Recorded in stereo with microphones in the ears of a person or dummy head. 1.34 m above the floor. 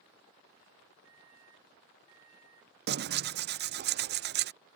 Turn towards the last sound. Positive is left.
turn(degrees=-50)  # may be behind; listen again after turning